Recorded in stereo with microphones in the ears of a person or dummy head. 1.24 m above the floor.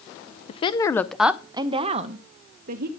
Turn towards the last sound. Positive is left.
turn(degrees=-50)  # may be behind; listen again after turning